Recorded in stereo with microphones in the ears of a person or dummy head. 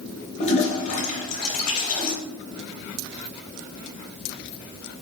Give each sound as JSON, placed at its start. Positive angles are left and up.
{"t": 0.4, "sound": "a toilet flushing", "side_deg": 40, "distance_m": 1.0}